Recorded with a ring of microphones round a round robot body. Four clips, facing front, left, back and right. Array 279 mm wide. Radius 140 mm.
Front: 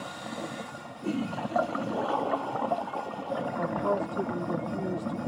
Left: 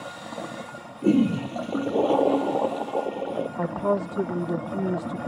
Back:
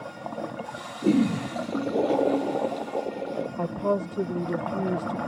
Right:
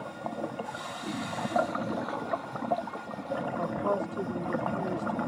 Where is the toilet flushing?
125° left.